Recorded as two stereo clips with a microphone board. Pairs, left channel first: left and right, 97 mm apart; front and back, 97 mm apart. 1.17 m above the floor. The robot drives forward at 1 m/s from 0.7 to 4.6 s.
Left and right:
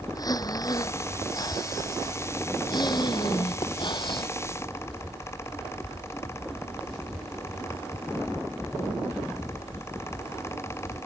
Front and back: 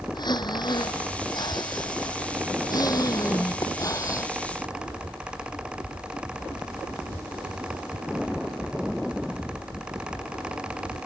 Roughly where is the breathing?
Ahead left.